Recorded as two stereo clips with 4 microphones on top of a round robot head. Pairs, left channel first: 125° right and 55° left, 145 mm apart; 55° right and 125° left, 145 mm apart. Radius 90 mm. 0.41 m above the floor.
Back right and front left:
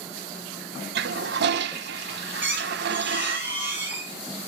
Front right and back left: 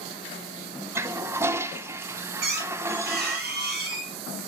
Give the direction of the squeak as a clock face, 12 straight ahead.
8 o'clock.